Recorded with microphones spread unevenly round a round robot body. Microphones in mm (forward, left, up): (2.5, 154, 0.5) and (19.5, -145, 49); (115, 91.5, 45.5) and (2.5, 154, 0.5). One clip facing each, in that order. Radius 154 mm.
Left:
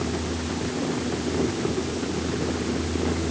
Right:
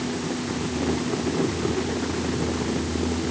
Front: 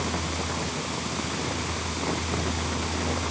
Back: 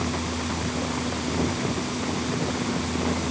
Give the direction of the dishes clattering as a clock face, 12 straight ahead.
I don't hear dishes clattering.